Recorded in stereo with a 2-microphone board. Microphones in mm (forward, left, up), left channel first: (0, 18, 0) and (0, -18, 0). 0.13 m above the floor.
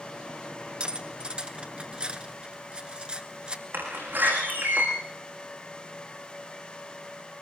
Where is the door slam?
70° right (ahead or behind), 7 m.